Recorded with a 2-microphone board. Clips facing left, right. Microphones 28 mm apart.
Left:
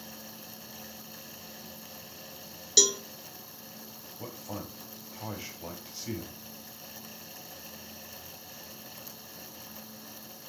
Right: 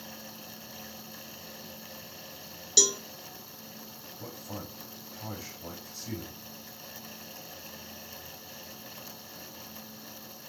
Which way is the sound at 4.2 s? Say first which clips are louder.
Left 2 dB; 35° left (ahead or behind).